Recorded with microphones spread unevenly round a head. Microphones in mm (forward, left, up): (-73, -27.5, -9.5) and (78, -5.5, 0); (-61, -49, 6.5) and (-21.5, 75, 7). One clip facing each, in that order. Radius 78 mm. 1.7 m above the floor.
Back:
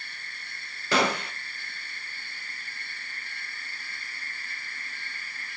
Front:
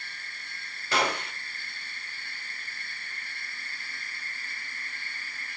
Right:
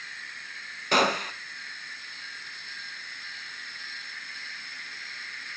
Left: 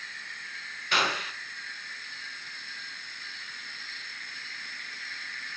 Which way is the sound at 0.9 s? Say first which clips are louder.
Back 3 dB, right 6 dB; 155° right.